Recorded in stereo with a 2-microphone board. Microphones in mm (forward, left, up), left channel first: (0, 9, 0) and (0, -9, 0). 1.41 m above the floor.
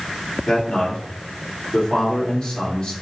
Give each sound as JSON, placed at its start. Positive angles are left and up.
{"t": 0.5, "sound": "a man speaking", "side_deg": 55, "distance_m": 3.5}